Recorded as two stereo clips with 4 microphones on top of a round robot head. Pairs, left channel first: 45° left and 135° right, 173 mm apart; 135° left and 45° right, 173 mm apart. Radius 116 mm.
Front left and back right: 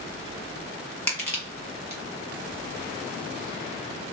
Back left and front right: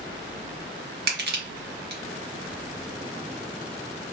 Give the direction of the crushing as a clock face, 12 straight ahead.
1 o'clock.